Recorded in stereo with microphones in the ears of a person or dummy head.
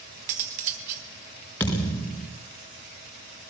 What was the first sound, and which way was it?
Cutlery clinking, 40° right (ahead or behind).